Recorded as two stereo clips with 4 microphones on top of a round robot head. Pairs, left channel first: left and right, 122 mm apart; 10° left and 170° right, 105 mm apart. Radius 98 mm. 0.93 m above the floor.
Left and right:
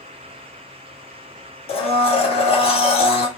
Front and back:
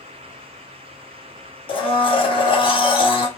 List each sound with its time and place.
1.7 s a blender: 50° left, 1.2 m